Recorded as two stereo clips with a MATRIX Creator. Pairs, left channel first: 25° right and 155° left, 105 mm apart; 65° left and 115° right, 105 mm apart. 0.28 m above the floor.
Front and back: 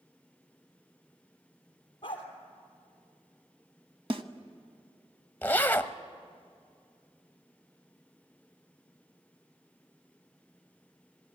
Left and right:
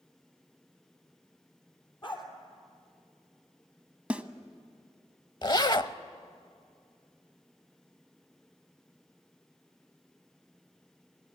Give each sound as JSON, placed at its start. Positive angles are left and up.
{"t": 2.0, "sound": "a dog barking", "azimuth_deg": 25, "distance_m": 3.5}
{"t": 4.1, "sound": "a snare drum", "azimuth_deg": 170, "distance_m": 1.1}
{"t": 5.4, "sound": "a zipper", "azimuth_deg": 40, "distance_m": 0.7}